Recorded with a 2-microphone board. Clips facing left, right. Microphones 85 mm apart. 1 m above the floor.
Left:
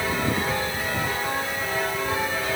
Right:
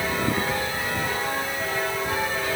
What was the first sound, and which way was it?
Only background noise.